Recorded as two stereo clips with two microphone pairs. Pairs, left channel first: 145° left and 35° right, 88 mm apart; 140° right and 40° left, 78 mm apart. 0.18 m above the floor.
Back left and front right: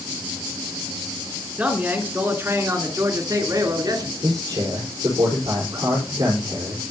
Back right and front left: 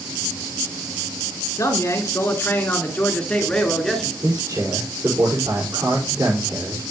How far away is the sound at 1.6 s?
About 3 m.